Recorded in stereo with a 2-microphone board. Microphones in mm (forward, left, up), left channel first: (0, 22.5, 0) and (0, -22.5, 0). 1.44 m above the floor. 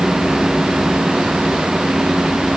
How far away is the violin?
I don't hear a violin.